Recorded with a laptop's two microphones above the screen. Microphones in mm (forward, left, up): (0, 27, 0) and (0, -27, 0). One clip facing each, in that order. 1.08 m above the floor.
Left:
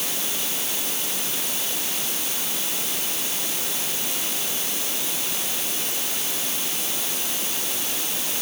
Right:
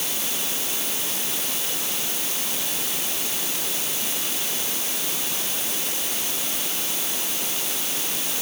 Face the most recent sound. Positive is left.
No sound to turn to.